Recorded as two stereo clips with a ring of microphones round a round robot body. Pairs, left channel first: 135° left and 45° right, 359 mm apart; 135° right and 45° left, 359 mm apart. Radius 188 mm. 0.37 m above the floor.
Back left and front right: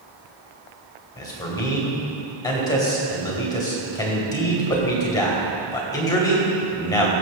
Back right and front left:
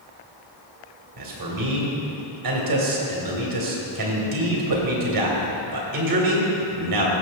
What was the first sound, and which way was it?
A man speaking, 55° left.